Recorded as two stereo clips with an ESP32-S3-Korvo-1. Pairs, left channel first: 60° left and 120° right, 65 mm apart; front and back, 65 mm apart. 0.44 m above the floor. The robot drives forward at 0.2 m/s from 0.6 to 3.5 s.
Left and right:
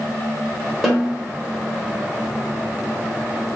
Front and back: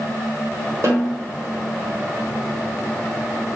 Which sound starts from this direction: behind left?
A snare drum, at 0.8 s.